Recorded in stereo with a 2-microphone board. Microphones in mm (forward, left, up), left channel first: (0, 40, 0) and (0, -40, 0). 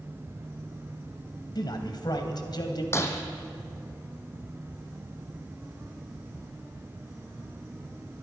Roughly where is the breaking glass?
Left.